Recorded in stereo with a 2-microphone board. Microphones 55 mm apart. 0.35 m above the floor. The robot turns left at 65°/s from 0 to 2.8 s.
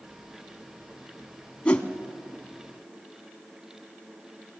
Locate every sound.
1.6 s a whoosh: 20° left (ahead or behind), 1.0 m; by 1.9 s 30° left (ahead or behind), 1.0 m